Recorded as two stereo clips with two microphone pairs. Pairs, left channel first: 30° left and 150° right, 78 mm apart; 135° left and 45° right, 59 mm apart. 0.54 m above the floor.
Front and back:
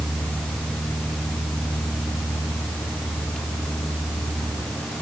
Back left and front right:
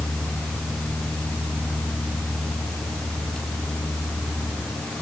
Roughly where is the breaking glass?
I don't hear breaking glass.